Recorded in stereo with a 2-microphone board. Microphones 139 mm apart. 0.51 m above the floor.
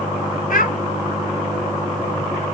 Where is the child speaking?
80° left, 2.5 m.